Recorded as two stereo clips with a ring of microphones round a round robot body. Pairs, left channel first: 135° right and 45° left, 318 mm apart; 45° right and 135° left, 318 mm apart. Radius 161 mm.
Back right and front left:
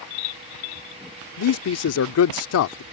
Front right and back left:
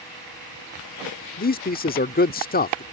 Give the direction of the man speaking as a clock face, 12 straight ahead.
3 o'clock.